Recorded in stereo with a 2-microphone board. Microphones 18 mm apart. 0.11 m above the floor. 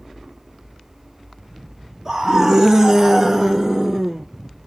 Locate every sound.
2.0 s a scream: 20° right (ahead or behind), 1.2 m; by 4.2 s centre (ahead or behind), 1.1 m